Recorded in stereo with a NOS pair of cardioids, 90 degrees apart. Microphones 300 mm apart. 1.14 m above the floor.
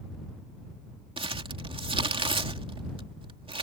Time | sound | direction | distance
1.2 | crumpling | 20° right | ?